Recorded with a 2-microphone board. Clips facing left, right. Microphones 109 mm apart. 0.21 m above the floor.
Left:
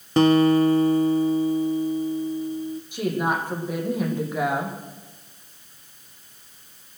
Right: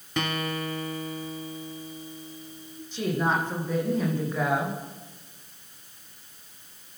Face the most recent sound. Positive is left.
turn(degrees=10)  # may be behind; listen again after turning